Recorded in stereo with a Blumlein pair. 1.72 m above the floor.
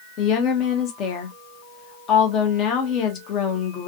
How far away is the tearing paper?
I don't hear tearing paper.